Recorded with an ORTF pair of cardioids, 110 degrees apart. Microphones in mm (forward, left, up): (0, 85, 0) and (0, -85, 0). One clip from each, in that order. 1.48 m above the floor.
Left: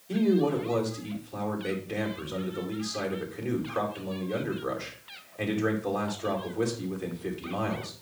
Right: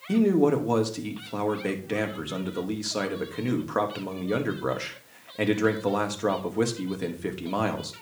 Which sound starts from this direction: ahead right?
A man speaking, at 0.1 s.